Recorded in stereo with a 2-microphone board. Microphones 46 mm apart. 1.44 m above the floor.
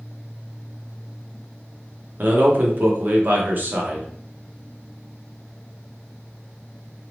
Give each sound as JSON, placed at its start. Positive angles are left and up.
{"t": 2.2, "sound": "a man speaking", "side_deg": -40, "distance_m": 0.8}